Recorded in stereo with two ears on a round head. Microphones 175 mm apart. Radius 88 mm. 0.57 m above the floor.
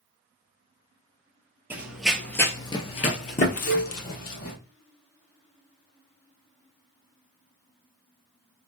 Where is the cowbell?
65° left (ahead or behind), 1.0 m.